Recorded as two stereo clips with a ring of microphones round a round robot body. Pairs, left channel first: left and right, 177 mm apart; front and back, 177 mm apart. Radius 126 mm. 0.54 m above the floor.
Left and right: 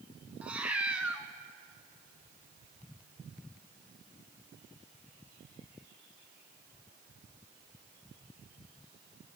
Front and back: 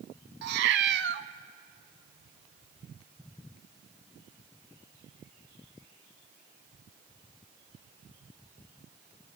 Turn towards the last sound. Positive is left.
turn(degrees=-175)